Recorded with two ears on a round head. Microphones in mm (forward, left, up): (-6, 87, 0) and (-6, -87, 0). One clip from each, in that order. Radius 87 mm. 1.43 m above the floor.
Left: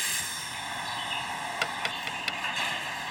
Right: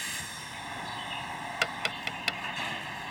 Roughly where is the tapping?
Centre.